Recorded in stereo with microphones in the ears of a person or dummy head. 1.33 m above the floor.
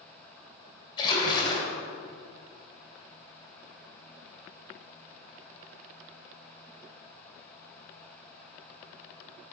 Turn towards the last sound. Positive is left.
turn(degrees=25)  # may be behind; listen again after turning